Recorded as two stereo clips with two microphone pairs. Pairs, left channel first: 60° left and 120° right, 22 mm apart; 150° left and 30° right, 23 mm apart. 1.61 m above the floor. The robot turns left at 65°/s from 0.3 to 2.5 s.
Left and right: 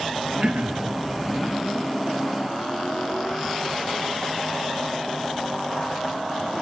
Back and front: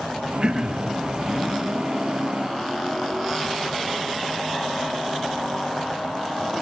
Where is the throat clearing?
80° right, 3 m; by 0.9 s 110° right, 3 m.